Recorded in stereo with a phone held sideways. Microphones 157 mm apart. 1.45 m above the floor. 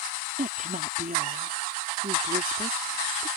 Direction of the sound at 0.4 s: 60° right (ahead or behind).